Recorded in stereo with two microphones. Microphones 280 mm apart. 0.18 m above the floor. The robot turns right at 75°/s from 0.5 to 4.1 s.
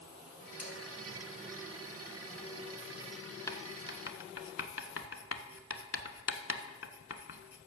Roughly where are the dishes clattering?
Left.